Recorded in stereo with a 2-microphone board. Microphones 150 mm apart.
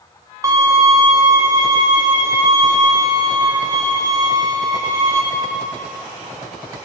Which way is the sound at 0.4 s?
25° right (ahead or behind).